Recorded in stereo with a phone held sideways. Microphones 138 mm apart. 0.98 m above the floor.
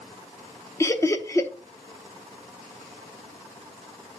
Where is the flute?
I don't hear a flute.